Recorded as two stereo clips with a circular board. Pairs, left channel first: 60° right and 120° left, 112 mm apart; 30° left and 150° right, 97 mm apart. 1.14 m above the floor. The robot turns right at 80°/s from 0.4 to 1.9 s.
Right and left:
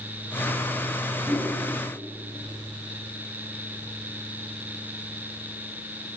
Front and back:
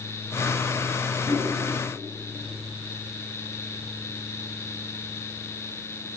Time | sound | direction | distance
1.3 | a whoosh | 165° left | 7.5 m